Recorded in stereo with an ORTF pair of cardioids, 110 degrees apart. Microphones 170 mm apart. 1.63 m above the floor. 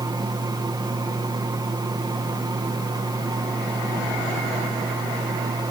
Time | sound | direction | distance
0.0 | a fan | 25° right | 1.8 m